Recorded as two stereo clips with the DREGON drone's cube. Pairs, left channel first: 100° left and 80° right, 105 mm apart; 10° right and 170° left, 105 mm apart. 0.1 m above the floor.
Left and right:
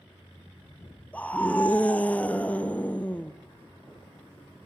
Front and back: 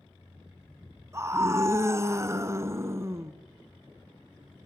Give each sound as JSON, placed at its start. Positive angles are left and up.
{"t": 1.1, "sound": "a scream", "azimuth_deg": 160, "distance_m": 1.2}